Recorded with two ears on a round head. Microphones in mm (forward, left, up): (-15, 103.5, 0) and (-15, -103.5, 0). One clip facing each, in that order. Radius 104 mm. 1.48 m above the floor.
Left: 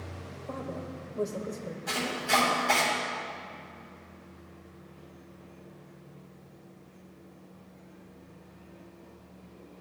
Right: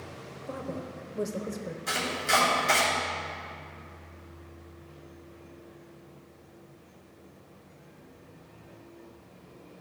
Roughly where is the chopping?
Right.